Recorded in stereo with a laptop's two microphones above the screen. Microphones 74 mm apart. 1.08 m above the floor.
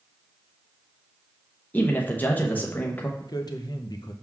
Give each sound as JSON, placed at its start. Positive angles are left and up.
{"t": 1.7, "sound": "a man speaking", "side_deg": 20, "distance_m": 0.9}
{"t": 3.2, "sound": "a man speaking", "side_deg": 60, "distance_m": 0.6}